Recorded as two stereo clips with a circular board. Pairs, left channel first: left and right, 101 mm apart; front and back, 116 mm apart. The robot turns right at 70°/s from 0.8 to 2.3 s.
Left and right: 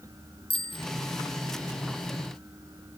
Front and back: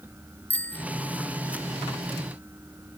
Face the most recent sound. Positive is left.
turn(degrees=180)